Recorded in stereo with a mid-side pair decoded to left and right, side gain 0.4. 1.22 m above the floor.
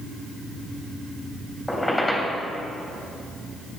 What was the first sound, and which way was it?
A squeak, 10° left.